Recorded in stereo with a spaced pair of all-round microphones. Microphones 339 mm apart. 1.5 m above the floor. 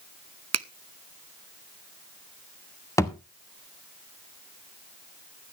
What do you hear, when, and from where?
0.5 s a finger snap: 50° right (ahead or behind), 0.5 m
3.0 s a thud: 10° left (ahead or behind), 0.9 m